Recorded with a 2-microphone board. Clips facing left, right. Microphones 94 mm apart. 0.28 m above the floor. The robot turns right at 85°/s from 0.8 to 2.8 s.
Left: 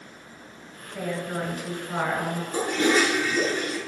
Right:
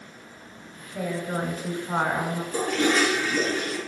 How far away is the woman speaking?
About 1.1 m.